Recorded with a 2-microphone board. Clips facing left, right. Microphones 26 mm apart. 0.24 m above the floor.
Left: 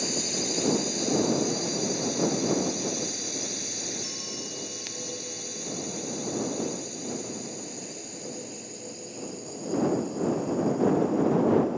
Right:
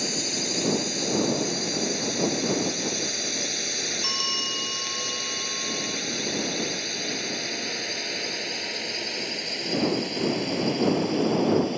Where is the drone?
15° right (ahead or behind); by 11.8 s 70° right (ahead or behind).